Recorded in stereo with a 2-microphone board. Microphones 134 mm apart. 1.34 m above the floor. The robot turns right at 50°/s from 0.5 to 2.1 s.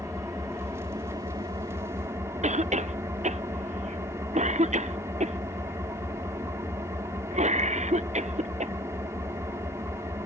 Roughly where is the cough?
Right.